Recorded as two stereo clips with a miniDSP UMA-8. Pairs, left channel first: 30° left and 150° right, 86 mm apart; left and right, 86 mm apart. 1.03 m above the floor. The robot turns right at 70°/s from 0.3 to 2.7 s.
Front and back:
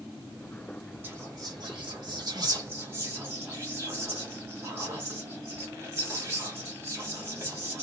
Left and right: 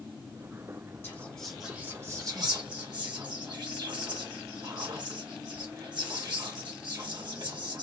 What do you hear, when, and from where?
1.0 s whispering: 150° left, 1.1 m; by 7.8 s 95° right, 1.1 m